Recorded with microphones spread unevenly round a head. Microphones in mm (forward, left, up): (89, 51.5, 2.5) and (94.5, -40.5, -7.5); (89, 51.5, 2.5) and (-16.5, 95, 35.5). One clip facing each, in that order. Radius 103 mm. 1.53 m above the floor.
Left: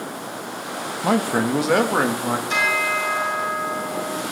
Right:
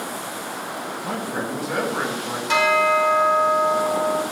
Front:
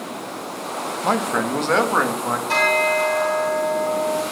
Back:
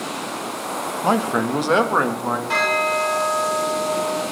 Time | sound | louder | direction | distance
1.0 | a man speaking | left 9 dB, back 2 dB | 85° left | 1.3 m
2.5 | a bell | right 5 dB, front 3 dB | 95° right | 3.5 m